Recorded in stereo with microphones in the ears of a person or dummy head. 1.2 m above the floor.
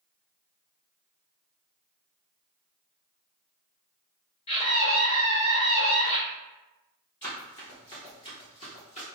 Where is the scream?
40° left (ahead or behind), 1.8 m.